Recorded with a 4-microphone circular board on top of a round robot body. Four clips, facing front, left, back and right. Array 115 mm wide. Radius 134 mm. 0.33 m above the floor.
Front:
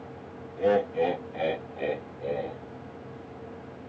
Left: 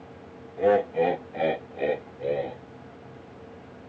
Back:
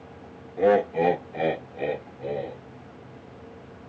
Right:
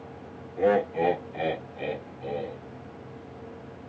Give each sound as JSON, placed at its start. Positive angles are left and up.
{"t": 0.6, "sound": "laughter", "azimuth_deg": -165, "distance_m": 1.2}